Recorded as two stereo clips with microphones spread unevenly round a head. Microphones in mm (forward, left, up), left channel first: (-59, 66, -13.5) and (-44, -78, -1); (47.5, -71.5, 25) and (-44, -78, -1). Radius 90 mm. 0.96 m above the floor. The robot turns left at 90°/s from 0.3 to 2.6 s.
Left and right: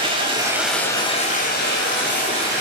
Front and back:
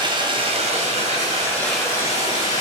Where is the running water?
140° right, 3.5 m; by 2.6 s 15° left, 3.5 m.